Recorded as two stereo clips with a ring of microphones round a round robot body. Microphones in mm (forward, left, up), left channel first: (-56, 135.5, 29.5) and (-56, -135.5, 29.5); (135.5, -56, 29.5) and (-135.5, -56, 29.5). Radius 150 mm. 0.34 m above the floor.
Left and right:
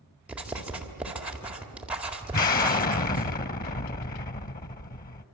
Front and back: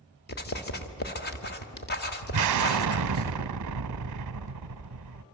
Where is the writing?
5° right, 1.8 m.